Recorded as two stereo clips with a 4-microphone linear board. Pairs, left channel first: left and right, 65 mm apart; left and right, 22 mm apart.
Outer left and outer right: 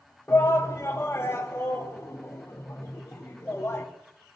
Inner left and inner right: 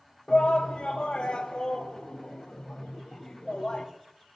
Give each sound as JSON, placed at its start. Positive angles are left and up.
{"t": 0.3, "sound": "a shout", "side_deg": 40, "distance_m": 1.6}